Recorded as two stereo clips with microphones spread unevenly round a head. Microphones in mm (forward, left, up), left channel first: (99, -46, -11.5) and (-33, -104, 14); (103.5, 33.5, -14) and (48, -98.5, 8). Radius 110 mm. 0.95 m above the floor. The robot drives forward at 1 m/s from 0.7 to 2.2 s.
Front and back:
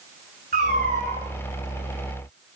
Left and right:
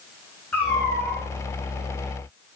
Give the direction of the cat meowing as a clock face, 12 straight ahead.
7 o'clock.